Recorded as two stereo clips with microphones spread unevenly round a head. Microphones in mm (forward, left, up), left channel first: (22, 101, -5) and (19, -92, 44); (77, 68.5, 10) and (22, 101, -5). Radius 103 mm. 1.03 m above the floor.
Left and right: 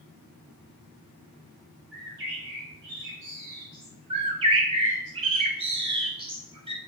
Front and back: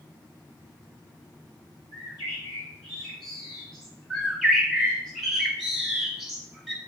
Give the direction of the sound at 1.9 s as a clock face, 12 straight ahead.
2 o'clock.